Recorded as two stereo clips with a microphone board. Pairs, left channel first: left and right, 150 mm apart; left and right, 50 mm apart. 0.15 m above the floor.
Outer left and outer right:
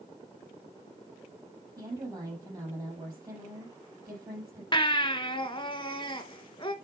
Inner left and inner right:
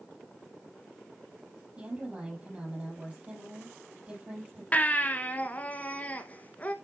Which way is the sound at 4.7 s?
30° left (ahead or behind).